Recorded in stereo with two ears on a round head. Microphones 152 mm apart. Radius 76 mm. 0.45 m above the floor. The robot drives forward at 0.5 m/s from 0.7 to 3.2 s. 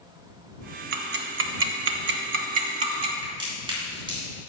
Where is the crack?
30° right (ahead or behind), 2.5 m.